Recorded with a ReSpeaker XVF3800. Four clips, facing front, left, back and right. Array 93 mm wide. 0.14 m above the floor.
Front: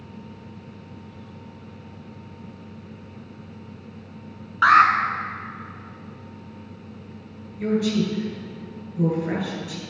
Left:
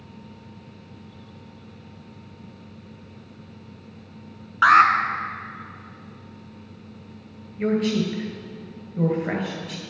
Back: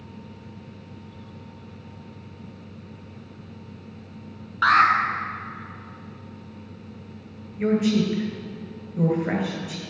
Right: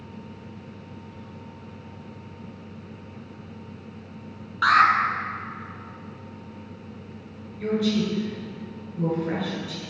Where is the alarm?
60° left, 1.1 m.